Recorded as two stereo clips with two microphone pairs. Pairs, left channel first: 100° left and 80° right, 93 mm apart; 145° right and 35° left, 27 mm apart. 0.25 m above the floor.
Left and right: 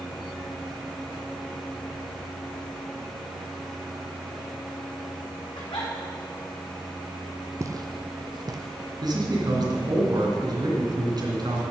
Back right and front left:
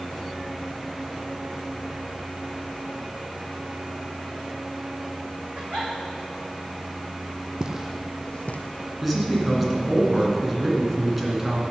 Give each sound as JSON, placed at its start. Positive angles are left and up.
{"t": 5.5, "sound": "a giggle", "azimuth_deg": 70, "distance_m": 3.0}
{"t": 7.6, "sound": "footsteps", "azimuth_deg": -30, "distance_m": 0.8}
{"t": 9.0, "sound": "a man speaking", "azimuth_deg": -50, "distance_m": 2.5}